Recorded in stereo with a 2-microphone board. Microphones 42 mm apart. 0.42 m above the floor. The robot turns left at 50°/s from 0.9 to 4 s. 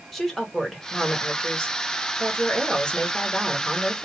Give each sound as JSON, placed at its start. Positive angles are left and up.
{"t": 0.1, "sound": "a woman speaking", "side_deg": 10, "distance_m": 1.3}